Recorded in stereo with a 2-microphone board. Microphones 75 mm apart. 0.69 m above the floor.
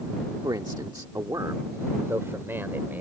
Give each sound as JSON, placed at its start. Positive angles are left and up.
{"t": 0.4, "sound": "a man speaking", "side_deg": -70}